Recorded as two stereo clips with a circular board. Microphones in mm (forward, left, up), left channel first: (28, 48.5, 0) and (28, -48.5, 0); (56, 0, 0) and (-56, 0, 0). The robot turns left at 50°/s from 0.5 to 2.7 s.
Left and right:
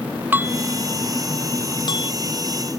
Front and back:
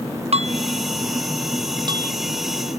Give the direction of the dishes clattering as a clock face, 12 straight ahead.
5 o'clock.